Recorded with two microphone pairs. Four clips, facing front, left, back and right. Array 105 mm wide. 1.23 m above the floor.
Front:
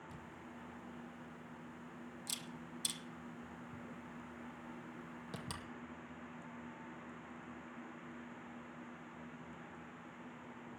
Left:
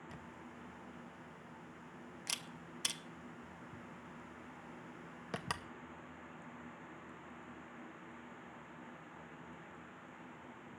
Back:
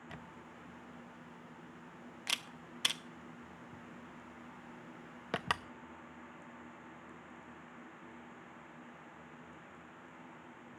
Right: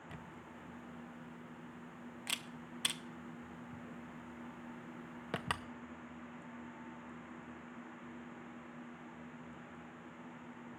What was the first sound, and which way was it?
A camera shutter, 170° right.